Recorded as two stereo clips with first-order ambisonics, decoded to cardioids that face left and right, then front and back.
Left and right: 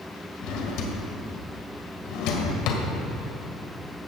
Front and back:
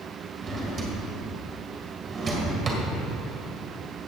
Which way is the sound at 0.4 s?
110° left.